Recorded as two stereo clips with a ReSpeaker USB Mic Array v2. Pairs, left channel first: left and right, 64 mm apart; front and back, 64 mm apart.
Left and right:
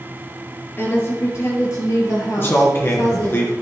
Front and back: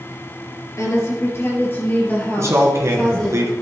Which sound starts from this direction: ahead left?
A woman speaking, at 0.8 s.